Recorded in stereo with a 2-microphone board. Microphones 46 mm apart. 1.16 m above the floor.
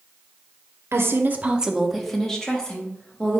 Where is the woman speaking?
60° right (ahead or behind), 0.5 m; by 3.4 s 20° left (ahead or behind), 1.6 m.